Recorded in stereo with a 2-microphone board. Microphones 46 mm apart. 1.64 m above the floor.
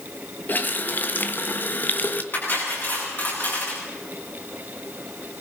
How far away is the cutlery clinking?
About 8.5 m.